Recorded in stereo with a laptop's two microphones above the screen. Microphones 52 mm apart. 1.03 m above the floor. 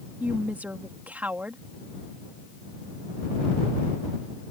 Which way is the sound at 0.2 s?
30° right (ahead or behind).